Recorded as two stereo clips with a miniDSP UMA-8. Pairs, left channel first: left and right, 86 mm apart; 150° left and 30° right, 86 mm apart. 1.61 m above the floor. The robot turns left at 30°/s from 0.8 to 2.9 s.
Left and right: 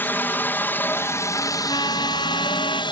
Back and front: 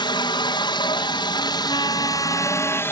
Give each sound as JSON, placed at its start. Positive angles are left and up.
{"t": 0.0, "sound": "a helicopter", "azimuth_deg": 155}
{"t": 1.7, "sound": "a trumpet", "azimuth_deg": 125}